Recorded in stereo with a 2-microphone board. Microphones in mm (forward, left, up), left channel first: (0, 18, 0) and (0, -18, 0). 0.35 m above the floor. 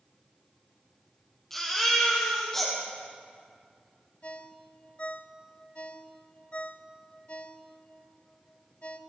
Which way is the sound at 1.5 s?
10° left (ahead or behind).